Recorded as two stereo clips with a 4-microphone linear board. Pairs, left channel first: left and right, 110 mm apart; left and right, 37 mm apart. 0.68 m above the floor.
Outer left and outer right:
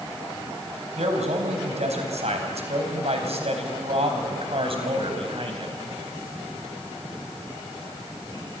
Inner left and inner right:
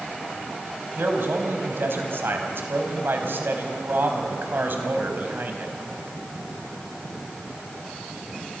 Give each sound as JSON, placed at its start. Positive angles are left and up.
{"t": 1.0, "sound": "a man speaking", "side_deg": -80, "distance_m": 4.0}